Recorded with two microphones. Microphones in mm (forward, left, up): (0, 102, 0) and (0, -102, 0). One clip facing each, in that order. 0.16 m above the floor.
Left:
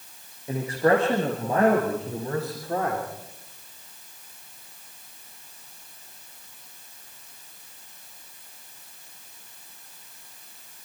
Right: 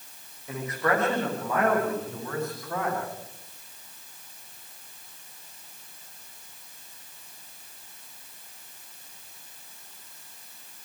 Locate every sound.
0.5 s a man speaking: 30° left (ahead or behind), 7 m; by 3.0 s 35° left (ahead or behind), 9.5 m